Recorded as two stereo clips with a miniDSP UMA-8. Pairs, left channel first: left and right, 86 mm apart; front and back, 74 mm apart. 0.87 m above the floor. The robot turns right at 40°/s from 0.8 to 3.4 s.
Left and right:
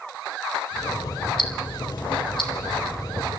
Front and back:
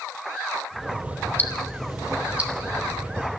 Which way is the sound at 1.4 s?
70° left.